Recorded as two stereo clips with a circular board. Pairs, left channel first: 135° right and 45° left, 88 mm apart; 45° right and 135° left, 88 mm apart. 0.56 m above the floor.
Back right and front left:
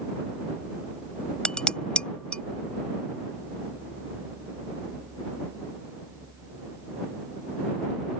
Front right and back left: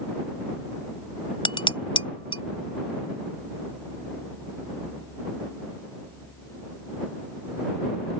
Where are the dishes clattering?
60° right.